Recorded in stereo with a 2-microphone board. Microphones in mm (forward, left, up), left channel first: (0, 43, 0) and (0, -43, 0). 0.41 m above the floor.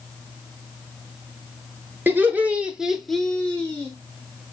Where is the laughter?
25° right (ahead or behind), 1.2 m; by 3.9 s 25° left (ahead or behind), 1.1 m.